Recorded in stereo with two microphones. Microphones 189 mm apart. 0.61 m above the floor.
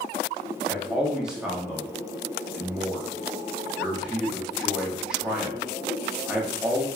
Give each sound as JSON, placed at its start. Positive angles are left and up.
{"t": 0.7, "sound": "a man speaking", "side_deg": -5, "distance_m": 0.7}